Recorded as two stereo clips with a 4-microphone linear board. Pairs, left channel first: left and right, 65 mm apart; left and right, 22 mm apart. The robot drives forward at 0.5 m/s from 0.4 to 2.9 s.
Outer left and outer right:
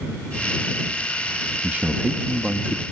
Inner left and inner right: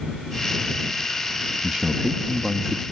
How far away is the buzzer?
No buzzer in this recording.